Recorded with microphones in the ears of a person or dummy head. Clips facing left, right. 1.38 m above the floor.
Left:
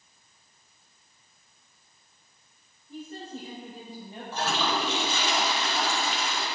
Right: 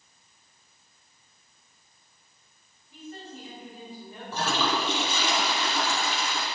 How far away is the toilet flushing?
About 2.5 m.